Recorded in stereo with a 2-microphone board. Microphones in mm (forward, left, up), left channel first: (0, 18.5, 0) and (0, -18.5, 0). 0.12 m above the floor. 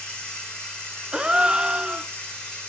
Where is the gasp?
25° right (ahead or behind), 0.6 m.